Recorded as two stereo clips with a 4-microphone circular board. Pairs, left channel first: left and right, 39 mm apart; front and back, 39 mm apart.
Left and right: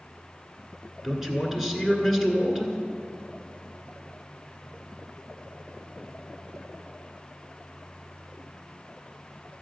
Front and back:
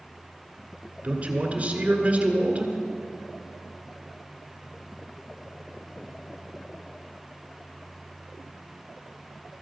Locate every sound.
1.0 s a man speaking: 165° right, 1.7 m